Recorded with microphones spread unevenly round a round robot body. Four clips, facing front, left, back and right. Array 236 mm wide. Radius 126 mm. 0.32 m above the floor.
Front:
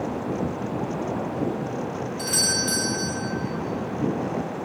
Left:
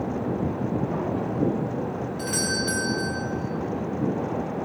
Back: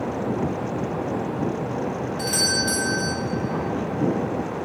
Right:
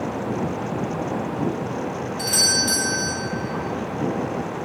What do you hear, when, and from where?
2.2 s a doorbell: 115° left, 1.5 m